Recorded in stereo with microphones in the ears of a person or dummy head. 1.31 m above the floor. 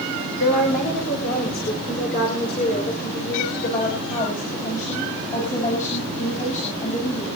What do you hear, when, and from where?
0.4 s a woman speaking: 55° left (ahead or behind), 4.5 m; by 7.4 s 40° left (ahead or behind), 7.5 m